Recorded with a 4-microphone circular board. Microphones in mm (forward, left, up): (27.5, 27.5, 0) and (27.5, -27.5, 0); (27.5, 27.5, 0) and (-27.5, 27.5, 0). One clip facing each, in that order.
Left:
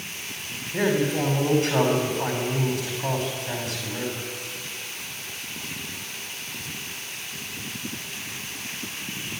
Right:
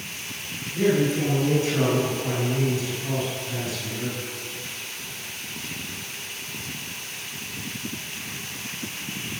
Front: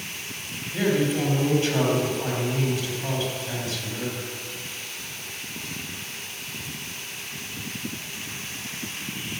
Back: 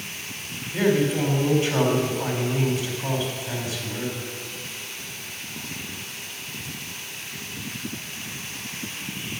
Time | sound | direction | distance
0.7 | a man speaking | 100° left | 4 m